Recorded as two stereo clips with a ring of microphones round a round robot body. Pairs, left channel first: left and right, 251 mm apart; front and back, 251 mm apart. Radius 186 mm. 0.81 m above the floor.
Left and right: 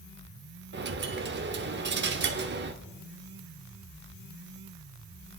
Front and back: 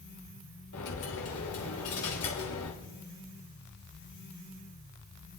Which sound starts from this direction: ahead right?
A dropped coin, at 0.7 s.